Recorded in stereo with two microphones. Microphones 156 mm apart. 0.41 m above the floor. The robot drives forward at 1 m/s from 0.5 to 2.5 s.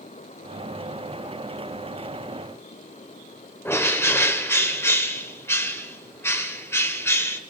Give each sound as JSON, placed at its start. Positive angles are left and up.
{"t": 3.6, "sound": "a bird", "side_deg": 15, "distance_m": 0.9}